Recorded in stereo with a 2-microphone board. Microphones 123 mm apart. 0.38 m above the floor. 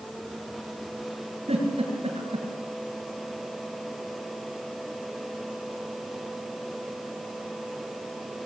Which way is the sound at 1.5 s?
60° right (ahead or behind).